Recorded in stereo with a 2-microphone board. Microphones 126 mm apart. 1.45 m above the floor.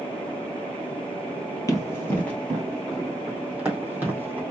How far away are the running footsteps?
About 1.8 m.